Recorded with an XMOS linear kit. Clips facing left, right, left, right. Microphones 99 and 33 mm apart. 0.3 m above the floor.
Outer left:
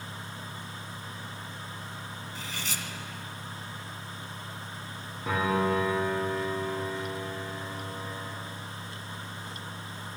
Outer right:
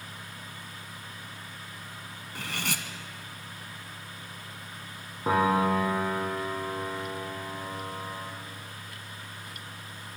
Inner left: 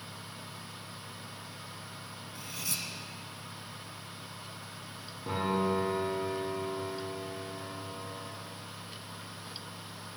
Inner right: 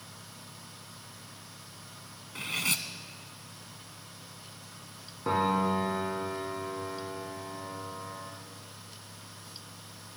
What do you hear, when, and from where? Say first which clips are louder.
2.4 s cutlery clinking: outer right 5 dB, inner right 9 dB; 65° right (ahead or behind), 1.5 m
5.2 s a piano: outer right 3 dB, inner right 3 dB; 35° right (ahead or behind), 7 m